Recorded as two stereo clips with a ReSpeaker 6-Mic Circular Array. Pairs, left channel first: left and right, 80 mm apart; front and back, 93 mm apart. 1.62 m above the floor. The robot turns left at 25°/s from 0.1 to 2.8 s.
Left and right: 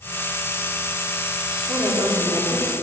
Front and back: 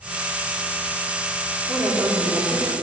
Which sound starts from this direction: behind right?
A woman speaking, at 1.7 s.